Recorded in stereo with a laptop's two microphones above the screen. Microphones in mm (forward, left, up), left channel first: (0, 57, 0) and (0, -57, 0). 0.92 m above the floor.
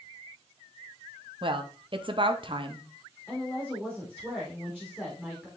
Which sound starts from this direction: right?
A woman speaking, at 1.4 s.